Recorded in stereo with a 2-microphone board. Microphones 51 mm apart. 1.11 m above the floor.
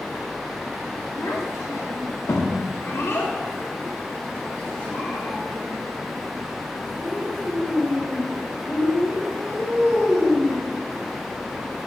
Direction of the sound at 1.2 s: 85° left.